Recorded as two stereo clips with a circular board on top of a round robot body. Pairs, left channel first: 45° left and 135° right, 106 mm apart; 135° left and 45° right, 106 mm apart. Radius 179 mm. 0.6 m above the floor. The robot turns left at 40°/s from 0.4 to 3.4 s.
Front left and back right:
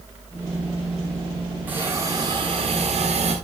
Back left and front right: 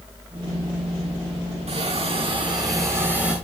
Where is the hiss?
60° right, 9.5 m; by 3.3 s 125° right, 9.5 m.